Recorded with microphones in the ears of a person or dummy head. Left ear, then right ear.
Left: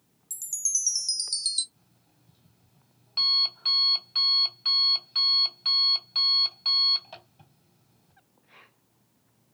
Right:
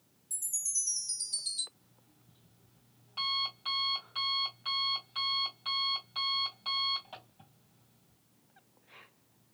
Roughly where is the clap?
No clap in this recording.